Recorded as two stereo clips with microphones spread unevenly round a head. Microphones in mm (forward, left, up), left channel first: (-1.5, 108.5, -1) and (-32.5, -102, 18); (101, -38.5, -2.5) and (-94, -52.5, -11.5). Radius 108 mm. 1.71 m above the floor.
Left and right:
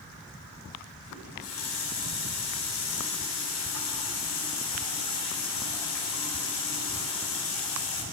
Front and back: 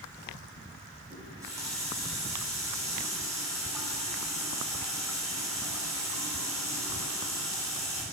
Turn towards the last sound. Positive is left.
turn(degrees=105)